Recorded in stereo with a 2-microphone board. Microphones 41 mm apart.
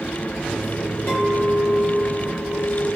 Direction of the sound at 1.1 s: 65° left (ahead or behind).